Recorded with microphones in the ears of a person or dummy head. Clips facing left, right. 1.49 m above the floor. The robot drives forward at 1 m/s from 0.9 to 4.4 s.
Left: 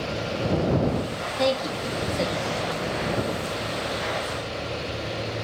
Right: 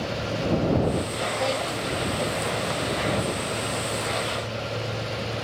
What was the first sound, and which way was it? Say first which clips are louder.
A woman speaking: left 6 dB; 70° left (ahead or behind).